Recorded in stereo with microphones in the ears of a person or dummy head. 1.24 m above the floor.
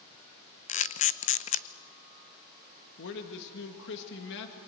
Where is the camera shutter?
40° left (ahead or behind), 0.5 m.